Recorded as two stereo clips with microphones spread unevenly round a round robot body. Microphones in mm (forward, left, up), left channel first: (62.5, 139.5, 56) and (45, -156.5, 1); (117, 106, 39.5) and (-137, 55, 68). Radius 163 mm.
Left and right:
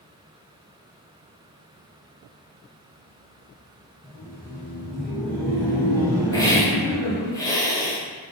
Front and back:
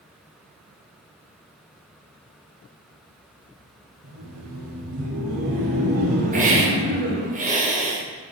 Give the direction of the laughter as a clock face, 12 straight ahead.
6 o'clock.